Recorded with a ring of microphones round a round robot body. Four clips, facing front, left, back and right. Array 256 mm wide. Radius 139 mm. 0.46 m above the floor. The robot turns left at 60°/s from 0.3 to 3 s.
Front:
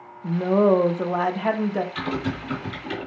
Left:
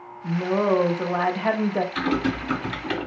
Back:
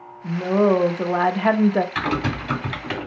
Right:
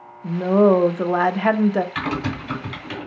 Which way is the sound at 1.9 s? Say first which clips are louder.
Left 2 dB, back 4 dB; 150° right.